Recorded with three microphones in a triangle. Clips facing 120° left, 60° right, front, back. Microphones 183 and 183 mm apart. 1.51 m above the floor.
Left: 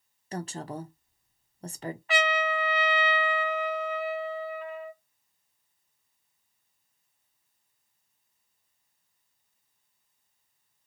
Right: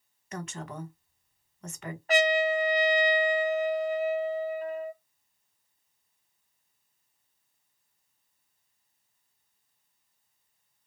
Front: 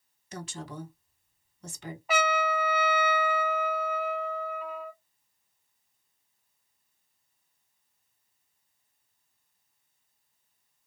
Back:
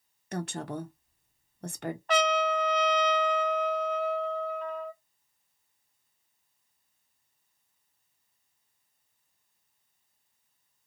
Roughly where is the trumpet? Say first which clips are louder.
Right 4 dB, back 1 dB; right.